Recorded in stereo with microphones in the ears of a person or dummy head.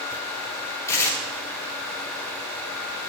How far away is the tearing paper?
About 2.5 m.